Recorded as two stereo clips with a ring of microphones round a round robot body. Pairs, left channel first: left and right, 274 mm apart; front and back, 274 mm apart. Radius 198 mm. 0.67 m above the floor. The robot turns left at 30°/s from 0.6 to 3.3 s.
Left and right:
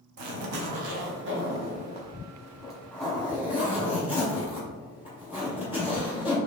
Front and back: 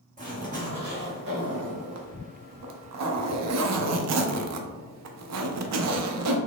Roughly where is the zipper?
Behind right.